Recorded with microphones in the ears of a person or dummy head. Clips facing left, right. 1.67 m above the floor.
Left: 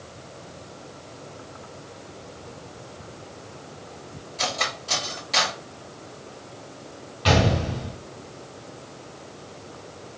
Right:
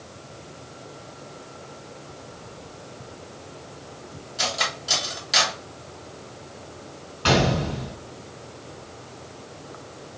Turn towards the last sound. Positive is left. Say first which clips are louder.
# even
turn(degrees=-25)  # may be behind; listen again after turning